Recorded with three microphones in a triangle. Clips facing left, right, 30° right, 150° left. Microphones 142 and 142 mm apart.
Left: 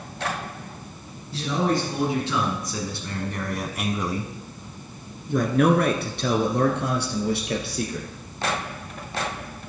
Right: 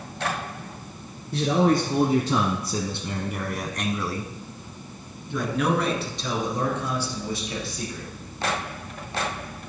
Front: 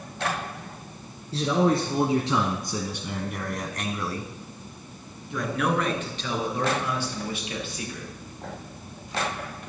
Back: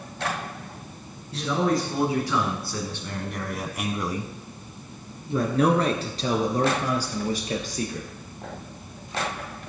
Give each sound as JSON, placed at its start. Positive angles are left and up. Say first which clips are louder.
{"t": 1.3, "sound": "a man speaking", "louder": "right 3 dB, front 2 dB", "azimuth_deg": -80, "distance_m": 1.8}